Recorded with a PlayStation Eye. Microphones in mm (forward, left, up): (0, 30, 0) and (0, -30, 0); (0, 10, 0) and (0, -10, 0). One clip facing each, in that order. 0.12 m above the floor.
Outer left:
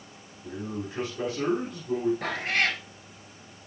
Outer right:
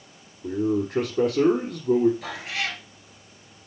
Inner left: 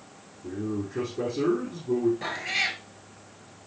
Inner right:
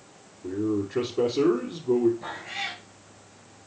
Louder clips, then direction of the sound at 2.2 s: Outer left 4 dB, inner left 5 dB; 55° left (ahead or behind).